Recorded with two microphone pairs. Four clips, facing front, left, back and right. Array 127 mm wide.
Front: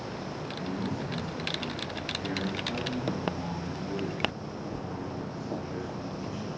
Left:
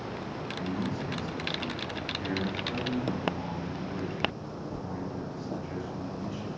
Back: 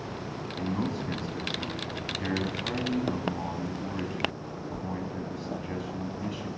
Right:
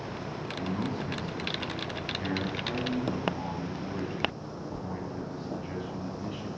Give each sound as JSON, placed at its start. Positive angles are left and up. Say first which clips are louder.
{"t": 0.6, "sound": "a man speaking", "louder": "right 1 dB, back 4 dB", "azimuth_deg": -170, "distance_m": 2.5}